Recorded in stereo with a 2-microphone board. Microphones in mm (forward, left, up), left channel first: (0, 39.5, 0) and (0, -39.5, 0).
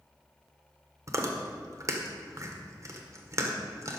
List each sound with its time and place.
1.1 s chewing: 40° right (ahead or behind), 1.1 m